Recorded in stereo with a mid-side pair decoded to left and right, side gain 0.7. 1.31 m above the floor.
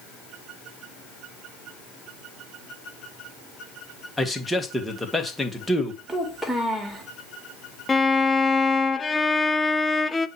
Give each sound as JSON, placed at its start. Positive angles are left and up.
{"t": 4.2, "sound": "a man speaking", "azimuth_deg": 5, "distance_m": 1.6}
{"t": 6.1, "sound": "a child speaking", "azimuth_deg": -10, "distance_m": 2.0}
{"t": 7.9, "sound": "a violin", "azimuth_deg": 15, "distance_m": 0.5}